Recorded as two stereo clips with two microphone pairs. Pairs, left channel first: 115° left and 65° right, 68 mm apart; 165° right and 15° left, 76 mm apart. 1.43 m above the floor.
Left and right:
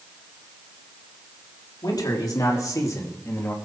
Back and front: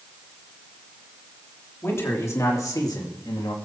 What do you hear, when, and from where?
1.8 s a man speaking: 135° left, 3.5 m; by 3.5 s 175° left, 2.5 m